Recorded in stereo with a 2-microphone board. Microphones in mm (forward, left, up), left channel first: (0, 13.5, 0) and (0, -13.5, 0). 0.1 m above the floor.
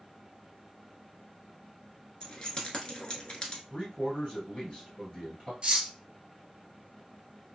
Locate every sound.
2.2 s keys jangling: 30° left (ahead or behind), 0.8 m
3.7 s a man speaking: 25° left (ahead or behind), 2.0 m
5.6 s cutlery clinking: 30° right (ahead or behind), 1.1 m